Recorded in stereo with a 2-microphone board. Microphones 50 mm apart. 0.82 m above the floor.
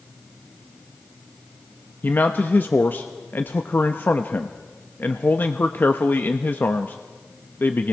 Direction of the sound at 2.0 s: 40° left (ahead or behind).